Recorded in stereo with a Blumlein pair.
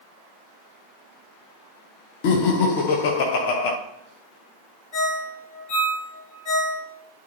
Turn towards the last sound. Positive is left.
turn(degrees=45)